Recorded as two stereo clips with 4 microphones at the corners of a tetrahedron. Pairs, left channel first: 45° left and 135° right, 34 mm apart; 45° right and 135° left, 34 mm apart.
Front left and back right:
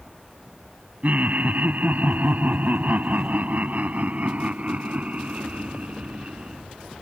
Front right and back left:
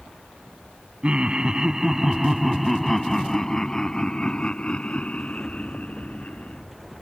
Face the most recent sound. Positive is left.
turn(degrees=-85)